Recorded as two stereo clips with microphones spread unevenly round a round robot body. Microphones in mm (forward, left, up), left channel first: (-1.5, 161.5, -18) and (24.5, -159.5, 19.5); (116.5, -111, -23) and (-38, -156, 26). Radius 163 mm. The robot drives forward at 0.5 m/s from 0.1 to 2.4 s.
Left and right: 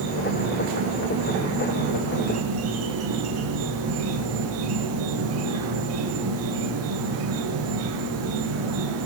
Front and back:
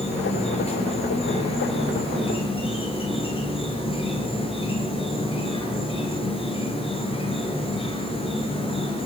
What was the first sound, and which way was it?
An insect, 35° right.